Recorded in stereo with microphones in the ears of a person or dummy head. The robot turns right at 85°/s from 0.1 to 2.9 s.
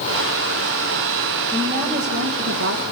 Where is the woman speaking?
170° right, 1.6 m; by 2.8 s 60° right, 1.6 m.